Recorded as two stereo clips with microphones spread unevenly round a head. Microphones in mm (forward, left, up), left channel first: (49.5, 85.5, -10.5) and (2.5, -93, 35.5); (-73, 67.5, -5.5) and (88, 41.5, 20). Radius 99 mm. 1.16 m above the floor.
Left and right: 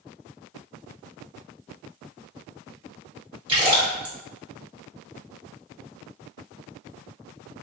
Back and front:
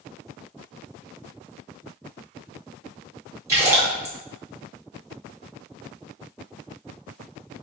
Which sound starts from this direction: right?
A splash, at 3.5 s.